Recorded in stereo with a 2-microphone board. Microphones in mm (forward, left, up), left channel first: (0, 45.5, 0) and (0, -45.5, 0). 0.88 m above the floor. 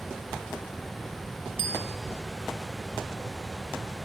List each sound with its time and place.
1.6 s a bicycle bell: 85° left, 3.5 m